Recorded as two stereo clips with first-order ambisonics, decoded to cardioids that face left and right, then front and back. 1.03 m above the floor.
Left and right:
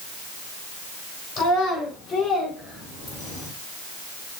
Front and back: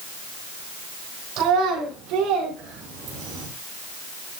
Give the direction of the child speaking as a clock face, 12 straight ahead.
7 o'clock.